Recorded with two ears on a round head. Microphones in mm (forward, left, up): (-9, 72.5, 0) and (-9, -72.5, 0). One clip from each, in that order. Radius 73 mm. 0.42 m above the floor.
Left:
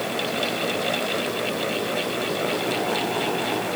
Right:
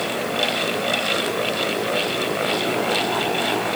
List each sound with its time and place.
Only background noise.